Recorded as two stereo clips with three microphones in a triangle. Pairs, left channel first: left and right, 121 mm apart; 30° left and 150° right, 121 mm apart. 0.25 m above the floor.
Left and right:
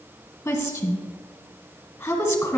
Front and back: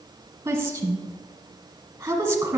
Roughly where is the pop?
I don't hear a pop.